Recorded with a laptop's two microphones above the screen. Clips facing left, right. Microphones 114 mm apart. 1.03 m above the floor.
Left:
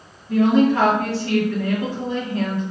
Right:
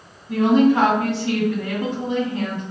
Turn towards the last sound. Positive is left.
turn(degrees=-20)  # may be behind; listen again after turning